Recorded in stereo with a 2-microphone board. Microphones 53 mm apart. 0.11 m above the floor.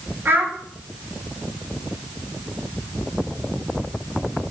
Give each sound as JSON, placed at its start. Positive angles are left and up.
{"t": 0.2, "sound": "a child speaking", "side_deg": -40, "distance_m": 1.0}